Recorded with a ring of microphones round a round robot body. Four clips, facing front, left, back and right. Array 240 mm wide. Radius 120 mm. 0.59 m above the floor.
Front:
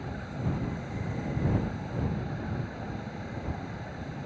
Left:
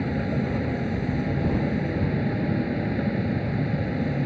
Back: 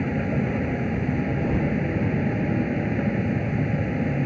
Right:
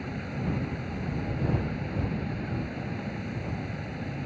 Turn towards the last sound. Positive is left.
turn(degrees=145)